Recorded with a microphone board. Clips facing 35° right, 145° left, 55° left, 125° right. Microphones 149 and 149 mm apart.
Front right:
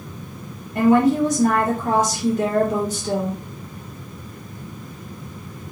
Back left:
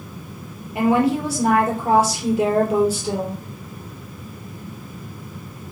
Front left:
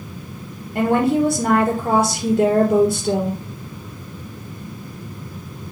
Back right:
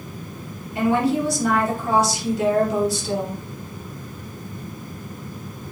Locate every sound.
0.8 s a woman speaking: 65° left, 3 m